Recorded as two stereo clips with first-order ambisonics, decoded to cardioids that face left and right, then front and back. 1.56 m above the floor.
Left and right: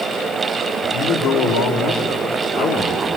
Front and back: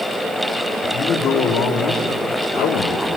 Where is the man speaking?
55° left, 3.5 m; by 3.1 s 30° left, 2 m.